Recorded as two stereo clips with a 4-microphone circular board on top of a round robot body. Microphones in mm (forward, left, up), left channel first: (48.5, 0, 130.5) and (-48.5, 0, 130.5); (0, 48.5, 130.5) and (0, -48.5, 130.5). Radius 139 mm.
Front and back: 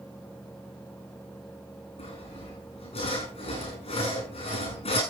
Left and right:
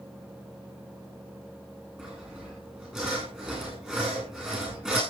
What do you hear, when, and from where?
2.0 s sawing: 10° right, 9.5 m